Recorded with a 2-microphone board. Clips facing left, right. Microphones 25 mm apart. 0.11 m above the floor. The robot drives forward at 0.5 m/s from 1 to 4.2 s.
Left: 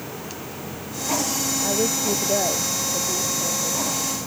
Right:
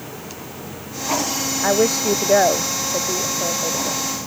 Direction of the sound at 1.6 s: 60° right (ahead or behind).